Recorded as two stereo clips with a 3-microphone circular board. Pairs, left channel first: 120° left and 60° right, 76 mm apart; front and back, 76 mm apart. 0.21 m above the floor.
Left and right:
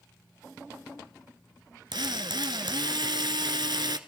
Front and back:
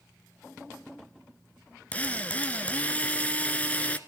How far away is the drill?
About 1.0 m.